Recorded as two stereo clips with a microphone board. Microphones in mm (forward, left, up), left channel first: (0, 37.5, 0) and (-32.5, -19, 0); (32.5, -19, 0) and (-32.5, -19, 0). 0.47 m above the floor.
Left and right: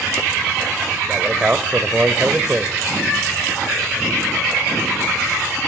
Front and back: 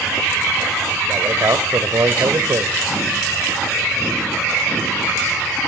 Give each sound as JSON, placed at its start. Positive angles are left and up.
{"t": 1.1, "sound": "a man speaking", "azimuth_deg": 170, "distance_m": 1.5}